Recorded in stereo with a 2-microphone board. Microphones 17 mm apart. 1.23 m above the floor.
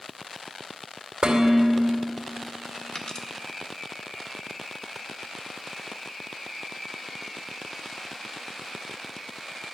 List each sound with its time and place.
1.2 s dishes clattering: 80° right, 2.5 m
3.0 s a dropped coin: 40° left (ahead or behind), 1.1 m